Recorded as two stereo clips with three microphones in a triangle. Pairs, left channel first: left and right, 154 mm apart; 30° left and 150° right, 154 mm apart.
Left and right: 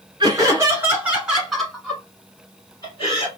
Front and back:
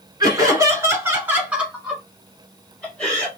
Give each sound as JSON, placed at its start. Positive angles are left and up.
{"t": 0.2, "sound": "laughter", "azimuth_deg": -120, "distance_m": 1.7}